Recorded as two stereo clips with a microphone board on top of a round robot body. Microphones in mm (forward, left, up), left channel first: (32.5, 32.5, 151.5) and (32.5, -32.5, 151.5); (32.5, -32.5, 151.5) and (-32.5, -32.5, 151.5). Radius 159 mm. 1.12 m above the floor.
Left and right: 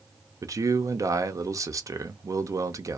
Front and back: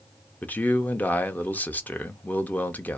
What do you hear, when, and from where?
0.4 s a man speaking: 65° right, 0.7 m